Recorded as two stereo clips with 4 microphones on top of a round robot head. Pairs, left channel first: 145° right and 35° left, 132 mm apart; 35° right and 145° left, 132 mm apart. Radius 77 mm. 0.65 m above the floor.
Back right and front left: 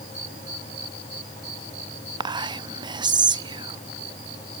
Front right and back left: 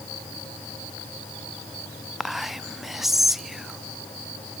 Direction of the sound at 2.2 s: 60° left.